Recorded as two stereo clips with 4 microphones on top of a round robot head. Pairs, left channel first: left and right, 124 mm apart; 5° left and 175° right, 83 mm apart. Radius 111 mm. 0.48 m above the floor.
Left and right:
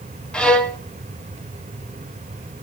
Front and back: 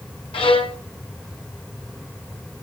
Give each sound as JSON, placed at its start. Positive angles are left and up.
{"t": 0.3, "sound": "a violin", "azimuth_deg": 5, "distance_m": 1.2}